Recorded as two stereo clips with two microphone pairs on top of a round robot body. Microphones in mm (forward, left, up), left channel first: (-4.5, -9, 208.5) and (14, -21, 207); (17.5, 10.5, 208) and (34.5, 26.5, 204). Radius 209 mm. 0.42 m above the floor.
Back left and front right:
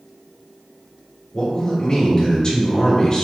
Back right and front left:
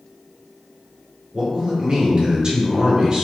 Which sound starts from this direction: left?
A man speaking, at 1.3 s.